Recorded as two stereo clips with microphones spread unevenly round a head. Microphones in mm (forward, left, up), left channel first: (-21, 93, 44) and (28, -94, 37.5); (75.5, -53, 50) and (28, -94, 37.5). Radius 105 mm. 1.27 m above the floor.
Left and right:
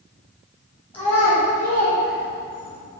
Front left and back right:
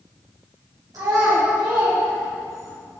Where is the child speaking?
175° right, 2 m; by 2.8 s 100° right, 2.5 m.